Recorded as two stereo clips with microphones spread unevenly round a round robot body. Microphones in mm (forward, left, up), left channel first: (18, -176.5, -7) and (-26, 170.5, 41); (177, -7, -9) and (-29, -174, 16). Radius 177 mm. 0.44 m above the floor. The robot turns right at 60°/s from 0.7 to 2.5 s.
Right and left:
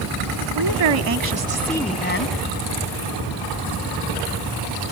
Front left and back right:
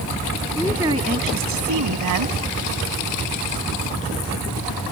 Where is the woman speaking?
130° left; by 2.4 s 130° right.